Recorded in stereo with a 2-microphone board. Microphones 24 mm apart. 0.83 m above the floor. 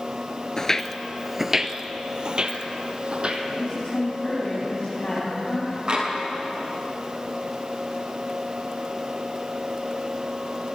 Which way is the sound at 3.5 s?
45° left (ahead or behind).